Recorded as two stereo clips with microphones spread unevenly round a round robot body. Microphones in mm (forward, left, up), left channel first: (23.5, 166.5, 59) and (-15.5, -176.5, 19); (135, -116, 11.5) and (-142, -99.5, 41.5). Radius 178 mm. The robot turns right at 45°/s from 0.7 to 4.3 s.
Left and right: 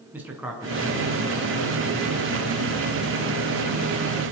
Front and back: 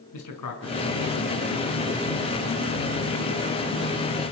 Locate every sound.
0.1 s a man speaking: 10° right, 5.5 m; by 2.8 s 80° left, 5.5 m